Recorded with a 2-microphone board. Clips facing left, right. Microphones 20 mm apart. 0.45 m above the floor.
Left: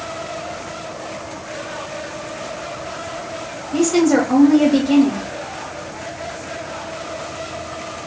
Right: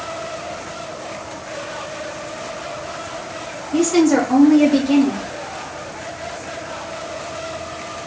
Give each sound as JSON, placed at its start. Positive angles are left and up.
{"t": 3.7, "sound": "a woman speaking", "side_deg": -5, "distance_m": 1.2}